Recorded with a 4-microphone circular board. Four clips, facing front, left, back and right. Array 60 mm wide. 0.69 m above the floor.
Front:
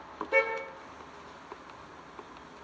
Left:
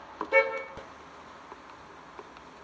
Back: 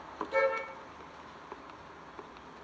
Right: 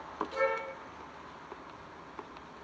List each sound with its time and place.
0.3 s a car horn: 55° left, 5.5 m